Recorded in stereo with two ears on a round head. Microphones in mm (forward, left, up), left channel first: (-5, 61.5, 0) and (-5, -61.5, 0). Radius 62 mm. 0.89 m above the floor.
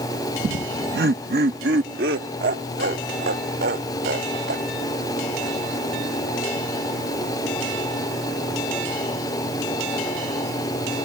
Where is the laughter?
60° right (ahead or behind); by 5.0 s 85° right.